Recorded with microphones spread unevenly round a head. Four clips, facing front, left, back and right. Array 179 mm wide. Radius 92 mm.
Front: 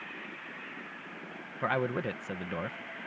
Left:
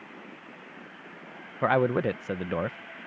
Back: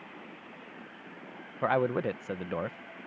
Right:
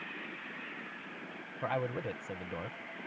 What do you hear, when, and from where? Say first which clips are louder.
1.6 s a man speaking: left 11 dB, back 4 dB; 85° left